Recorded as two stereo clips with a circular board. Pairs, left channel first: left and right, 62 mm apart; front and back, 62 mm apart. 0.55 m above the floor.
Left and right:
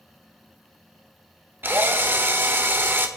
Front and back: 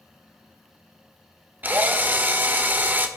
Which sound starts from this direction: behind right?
A drill, at 1.6 s.